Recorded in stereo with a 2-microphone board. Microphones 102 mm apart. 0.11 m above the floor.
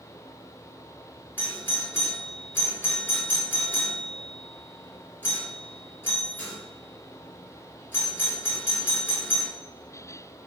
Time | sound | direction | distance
1.4 | a doorbell | 20° left (ahead or behind) | 1.7 m